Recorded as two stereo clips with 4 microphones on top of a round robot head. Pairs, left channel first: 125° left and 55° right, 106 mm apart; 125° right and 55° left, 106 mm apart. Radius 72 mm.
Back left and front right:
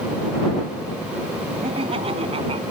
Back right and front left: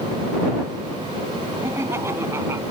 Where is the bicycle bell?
I don't hear a bicycle bell.